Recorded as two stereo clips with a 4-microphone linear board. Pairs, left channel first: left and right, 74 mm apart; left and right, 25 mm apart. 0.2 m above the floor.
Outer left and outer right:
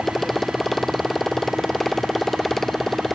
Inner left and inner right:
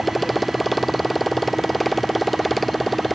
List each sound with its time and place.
0.0 s a motorcycle: 5° left (ahead or behind)